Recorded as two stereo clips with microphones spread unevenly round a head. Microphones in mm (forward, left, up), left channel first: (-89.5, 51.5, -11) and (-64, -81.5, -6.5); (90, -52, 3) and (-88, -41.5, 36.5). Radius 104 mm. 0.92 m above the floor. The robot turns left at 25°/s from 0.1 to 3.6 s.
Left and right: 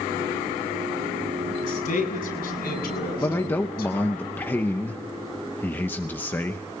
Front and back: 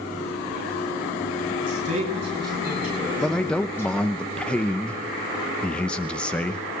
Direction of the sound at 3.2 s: 60° left.